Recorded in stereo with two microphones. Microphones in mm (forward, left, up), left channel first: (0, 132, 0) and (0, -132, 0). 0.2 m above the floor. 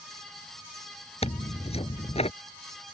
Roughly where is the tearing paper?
Left.